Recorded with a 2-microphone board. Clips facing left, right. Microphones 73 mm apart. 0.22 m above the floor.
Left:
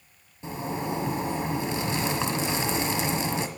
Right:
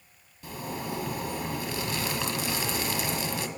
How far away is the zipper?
About 1.2 m.